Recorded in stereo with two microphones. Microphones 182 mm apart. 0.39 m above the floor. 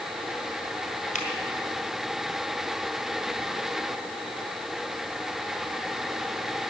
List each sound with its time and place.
1.1 s a finger snap: 45° left (ahead or behind), 3 m